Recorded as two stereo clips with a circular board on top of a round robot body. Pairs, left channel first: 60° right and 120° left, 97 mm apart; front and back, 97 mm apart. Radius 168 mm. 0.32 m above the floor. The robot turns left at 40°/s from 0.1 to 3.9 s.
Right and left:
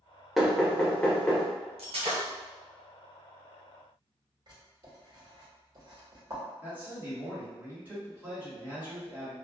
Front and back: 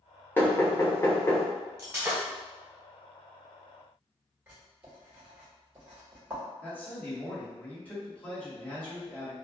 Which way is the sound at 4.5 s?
115° left.